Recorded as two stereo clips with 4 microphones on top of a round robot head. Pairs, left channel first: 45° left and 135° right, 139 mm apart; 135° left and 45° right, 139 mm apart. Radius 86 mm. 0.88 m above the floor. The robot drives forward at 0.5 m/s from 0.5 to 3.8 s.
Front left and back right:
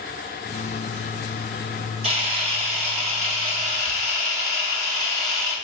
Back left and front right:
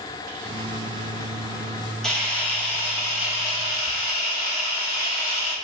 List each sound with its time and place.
2.0 s a camera shutter: 140° right, 1.2 m; by 5.5 s 160° right, 1.8 m